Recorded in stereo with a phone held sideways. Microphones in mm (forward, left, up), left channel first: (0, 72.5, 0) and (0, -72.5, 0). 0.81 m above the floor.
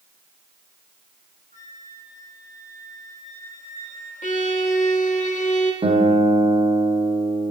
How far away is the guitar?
About 0.9 m.